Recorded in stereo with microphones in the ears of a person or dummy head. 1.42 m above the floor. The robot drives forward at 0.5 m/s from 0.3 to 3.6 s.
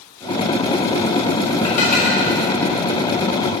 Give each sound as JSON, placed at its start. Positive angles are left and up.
{"t": 1.6, "sound": "dishes clattering", "side_deg": 45, "distance_m": 1.7}